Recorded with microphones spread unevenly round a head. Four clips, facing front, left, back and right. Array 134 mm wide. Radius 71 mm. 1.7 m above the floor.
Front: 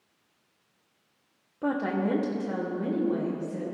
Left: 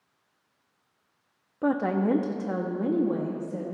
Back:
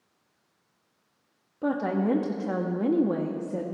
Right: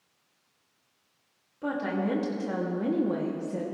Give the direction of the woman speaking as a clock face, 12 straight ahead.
8 o'clock.